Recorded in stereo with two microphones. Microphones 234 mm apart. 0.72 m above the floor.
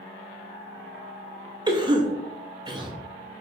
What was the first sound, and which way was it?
A cough, 20° right (ahead or behind).